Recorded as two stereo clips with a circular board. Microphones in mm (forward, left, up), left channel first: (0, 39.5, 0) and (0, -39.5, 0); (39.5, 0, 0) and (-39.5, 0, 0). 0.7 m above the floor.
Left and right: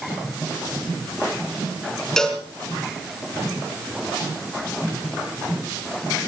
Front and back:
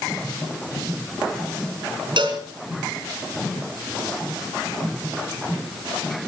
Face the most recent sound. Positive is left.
turn(degrees=175)